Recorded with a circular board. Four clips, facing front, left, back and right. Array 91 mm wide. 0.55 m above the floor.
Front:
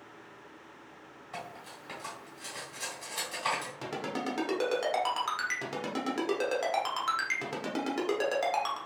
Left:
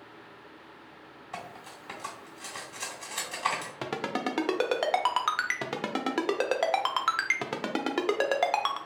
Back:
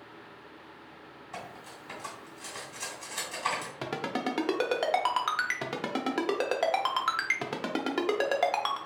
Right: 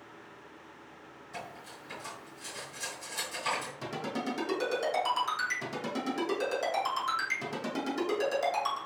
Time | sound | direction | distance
1.3 | cutlery clinking | 80° left | 1.5 m
3.8 | a ringtone | 115° left | 0.6 m